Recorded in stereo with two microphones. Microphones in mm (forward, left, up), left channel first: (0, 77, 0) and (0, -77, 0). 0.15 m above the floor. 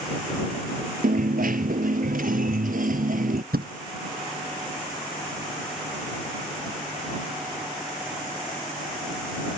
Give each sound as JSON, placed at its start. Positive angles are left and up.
{"t": 1.0, "sound": "a dropped coin", "side_deg": -65}
{"t": 3.5, "sound": "a thud", "side_deg": -80}